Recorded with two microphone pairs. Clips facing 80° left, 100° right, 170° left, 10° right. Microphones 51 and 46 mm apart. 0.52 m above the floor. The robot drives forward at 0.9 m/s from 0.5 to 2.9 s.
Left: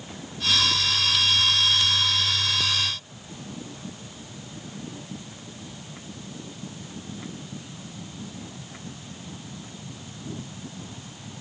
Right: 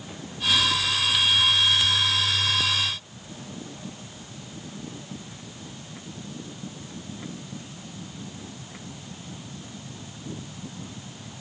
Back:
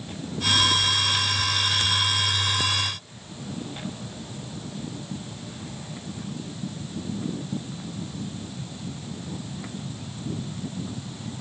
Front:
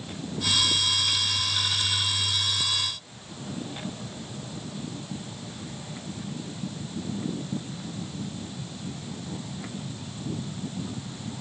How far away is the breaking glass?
No breaking glass in this recording.